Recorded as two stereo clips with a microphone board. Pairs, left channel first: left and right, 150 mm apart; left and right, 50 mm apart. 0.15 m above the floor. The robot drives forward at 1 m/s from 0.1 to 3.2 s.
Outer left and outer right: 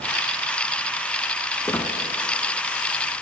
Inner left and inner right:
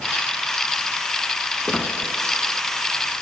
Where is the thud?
No thud in this recording.